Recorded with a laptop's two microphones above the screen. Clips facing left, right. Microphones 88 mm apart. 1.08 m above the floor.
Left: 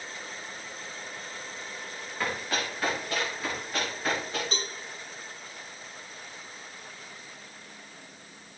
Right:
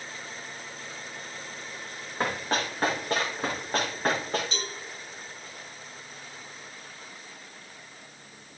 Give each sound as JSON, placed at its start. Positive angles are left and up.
{"t": 2.2, "sound": "running footsteps", "side_deg": -40, "distance_m": 7.5}
{"t": 4.5, "sound": "a cowbell", "side_deg": 40, "distance_m": 3.0}